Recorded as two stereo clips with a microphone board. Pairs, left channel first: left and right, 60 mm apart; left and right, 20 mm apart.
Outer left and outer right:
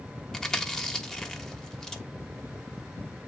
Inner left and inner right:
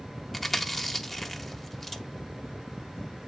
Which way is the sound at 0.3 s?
10° left (ahead or behind).